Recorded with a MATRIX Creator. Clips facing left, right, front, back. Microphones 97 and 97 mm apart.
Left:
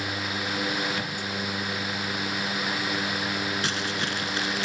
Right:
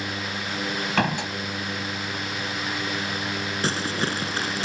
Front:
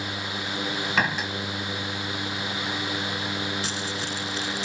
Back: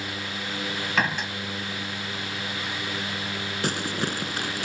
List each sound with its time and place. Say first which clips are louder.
1.0 s a door slam: right 8 dB, even; 90° right
3.6 s crumpling: right 3 dB, back 3 dB; 145° right